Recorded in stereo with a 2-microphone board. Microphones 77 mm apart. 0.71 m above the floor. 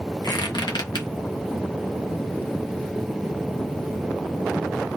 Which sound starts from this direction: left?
A squeak, at 0.2 s.